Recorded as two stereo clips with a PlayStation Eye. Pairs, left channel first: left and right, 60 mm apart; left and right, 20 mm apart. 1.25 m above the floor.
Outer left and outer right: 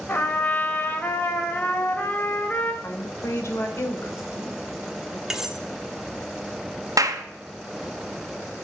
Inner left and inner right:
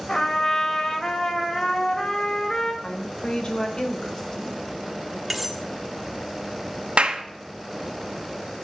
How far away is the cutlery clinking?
About 1.4 m.